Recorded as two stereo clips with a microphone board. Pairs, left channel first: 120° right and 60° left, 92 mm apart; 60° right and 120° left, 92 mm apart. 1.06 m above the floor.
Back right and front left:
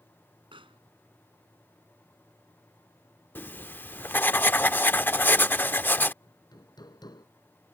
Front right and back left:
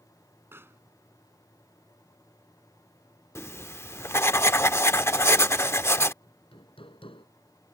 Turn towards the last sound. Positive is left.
turn(degrees=-75)